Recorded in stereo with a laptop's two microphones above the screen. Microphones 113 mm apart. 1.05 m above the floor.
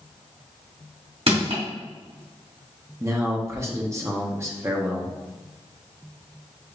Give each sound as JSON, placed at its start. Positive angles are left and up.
{"t": 1.3, "sound": "crushing", "side_deg": -60, "distance_m": 2.0}
{"t": 3.0, "sound": "a man speaking", "side_deg": -25, "distance_m": 0.7}